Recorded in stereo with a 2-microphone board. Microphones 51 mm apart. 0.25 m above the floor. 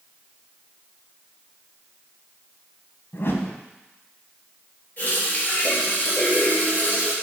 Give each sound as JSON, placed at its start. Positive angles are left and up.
{"t": 3.1, "sound": "a whoosh", "side_deg": 55, "distance_m": 0.8}
{"t": 5.0, "sound": "a running tap", "side_deg": 35, "distance_m": 3.0}